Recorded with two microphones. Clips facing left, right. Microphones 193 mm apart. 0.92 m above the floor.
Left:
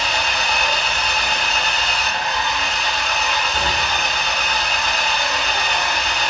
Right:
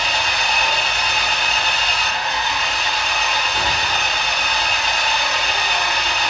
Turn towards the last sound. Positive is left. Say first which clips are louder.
# even
turn(degrees=-20)  # may be behind; listen again after turning